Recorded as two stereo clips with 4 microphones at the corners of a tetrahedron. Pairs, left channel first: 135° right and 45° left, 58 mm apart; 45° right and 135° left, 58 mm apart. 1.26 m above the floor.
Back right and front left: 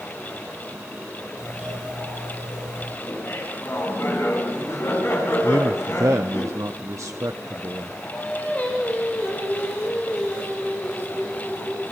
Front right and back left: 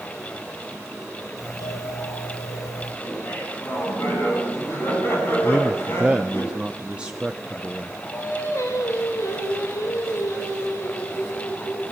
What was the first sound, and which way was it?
A doorbell, 30° right.